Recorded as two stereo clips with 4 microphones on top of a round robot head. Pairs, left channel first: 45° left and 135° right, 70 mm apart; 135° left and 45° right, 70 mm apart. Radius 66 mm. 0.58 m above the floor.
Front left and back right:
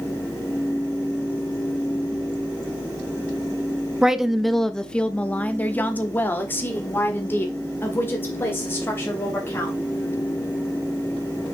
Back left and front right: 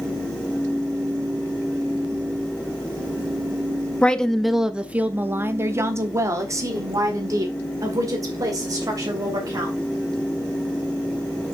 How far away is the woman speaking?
About 0.7 m.